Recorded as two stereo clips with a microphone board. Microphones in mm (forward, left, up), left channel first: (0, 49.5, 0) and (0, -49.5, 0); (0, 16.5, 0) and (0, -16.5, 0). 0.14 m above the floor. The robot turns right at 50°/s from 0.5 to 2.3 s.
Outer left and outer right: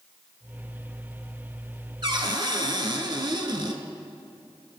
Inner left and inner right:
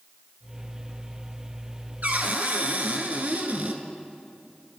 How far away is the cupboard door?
About 1.0 m.